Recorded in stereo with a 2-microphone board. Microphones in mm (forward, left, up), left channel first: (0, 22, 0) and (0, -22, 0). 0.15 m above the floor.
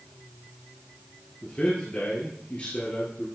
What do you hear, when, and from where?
1.4 s a man speaking: 30° left (ahead or behind), 2 m